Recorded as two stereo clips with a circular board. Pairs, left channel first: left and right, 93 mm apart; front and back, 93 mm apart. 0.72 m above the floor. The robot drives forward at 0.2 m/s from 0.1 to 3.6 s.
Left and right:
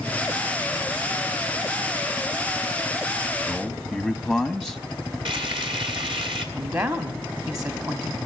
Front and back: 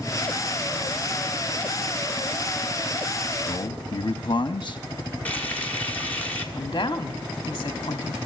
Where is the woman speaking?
40° right, 1.1 m.